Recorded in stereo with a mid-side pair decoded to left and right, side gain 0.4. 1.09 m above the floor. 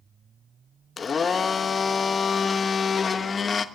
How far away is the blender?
About 1.3 m.